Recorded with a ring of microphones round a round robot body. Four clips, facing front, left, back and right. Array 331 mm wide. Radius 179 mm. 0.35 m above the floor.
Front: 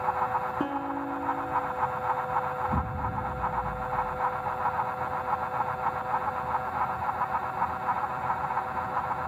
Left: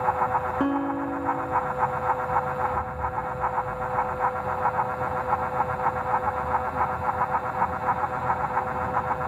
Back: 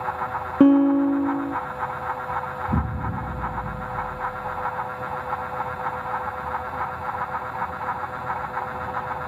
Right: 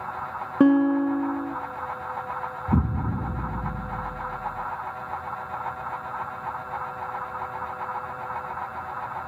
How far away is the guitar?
About 0.8 m.